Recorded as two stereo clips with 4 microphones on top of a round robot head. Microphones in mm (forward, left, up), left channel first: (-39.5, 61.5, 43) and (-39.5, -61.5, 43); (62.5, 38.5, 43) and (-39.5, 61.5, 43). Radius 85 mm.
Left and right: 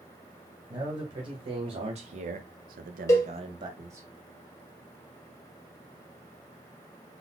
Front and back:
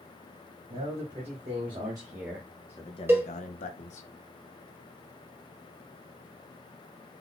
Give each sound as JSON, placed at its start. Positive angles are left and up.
{"t": 0.7, "sound": "a man speaking", "azimuth_deg": -145, "distance_m": 1.8}
{"t": 3.1, "sound": "a cowbell", "azimuth_deg": 125, "distance_m": 1.3}